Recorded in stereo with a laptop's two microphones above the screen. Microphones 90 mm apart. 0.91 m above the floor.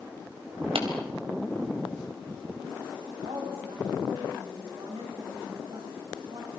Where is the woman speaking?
80° right, 8 m.